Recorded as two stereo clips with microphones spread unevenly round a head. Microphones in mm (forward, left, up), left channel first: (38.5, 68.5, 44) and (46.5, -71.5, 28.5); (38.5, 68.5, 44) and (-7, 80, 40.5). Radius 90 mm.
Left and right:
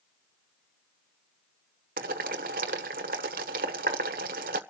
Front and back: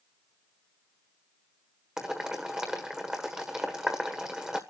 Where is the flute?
I don't hear a flute.